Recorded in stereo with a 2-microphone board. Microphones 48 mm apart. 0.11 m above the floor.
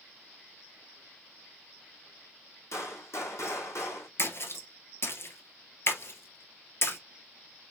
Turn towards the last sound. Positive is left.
turn(degrees=55)  # may be behind; listen again after turning